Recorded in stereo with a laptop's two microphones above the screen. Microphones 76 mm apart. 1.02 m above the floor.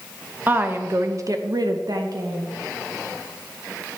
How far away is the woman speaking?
About 0.9 m.